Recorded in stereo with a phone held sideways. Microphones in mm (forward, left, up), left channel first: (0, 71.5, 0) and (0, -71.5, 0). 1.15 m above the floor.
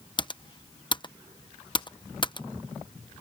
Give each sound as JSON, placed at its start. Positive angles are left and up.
{"t": 0.2, "sound": "typing on a keyboard", "side_deg": 35}